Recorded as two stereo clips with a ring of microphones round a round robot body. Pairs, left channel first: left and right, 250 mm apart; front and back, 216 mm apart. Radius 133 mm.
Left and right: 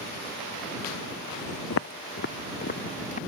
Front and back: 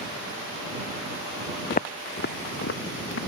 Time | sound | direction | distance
1.7 | footsteps | 55° left | ?